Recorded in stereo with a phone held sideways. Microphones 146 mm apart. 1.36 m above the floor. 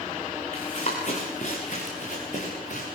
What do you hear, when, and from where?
0.5 s running footsteps: 50° left (ahead or behind), 6 m; by 2.9 s 65° left (ahead or behind), 8 m